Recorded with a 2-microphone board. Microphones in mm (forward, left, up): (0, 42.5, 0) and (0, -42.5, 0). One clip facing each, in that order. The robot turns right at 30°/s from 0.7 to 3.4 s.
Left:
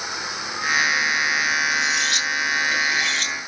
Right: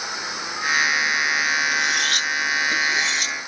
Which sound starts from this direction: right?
Cutlery clinking, at 1.7 s.